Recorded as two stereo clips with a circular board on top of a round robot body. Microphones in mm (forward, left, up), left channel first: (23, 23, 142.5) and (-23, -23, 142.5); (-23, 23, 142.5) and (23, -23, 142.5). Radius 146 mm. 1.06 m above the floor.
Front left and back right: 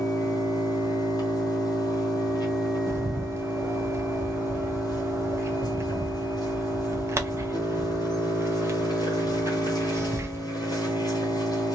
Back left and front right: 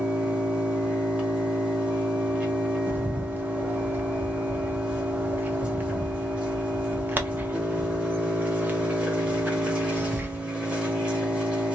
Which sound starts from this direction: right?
A bird, at 2.9 s.